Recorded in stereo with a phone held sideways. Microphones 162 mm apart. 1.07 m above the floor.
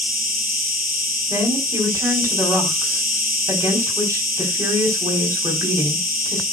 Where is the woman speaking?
20° right (ahead or behind), 4 m.